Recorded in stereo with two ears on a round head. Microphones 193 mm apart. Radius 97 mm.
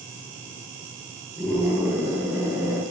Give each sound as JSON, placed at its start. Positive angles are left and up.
{"t": 1.4, "sound": "a scream", "side_deg": 20, "distance_m": 7.5}